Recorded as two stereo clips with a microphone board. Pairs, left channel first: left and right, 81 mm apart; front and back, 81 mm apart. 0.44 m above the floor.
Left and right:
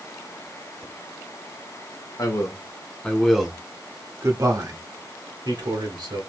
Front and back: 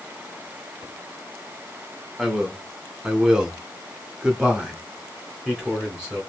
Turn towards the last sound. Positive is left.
turn(degrees=-100)